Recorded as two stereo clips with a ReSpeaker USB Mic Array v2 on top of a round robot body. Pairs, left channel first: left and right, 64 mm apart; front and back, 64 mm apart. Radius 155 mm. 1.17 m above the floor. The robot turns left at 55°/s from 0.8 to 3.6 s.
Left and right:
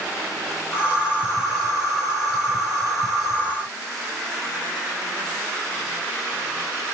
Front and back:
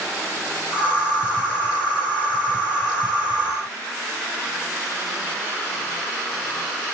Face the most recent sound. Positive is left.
No sound to turn to.